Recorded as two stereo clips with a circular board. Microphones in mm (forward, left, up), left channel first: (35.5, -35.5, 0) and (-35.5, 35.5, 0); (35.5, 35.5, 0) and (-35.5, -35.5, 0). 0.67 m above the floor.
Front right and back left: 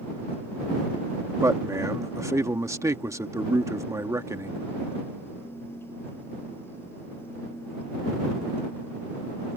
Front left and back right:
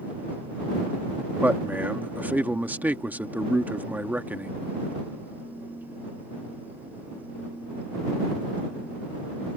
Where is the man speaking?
165° left.